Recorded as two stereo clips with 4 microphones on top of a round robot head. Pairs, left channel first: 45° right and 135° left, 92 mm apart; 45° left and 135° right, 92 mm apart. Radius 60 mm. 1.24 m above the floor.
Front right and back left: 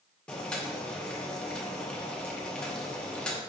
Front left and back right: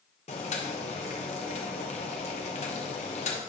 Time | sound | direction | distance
0.3 | boiling | 35° left | 0.9 m